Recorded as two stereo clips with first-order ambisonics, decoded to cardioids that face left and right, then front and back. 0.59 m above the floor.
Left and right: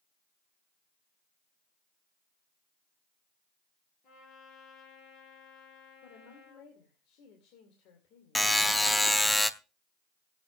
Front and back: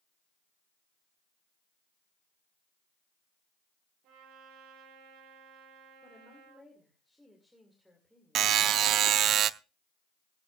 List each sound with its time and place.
4.0 s a trumpet: 145° left, 8 m
6.0 s a woman speaking: 90° left, 2.5 m
8.3 s a buzzer: 175° left, 0.5 m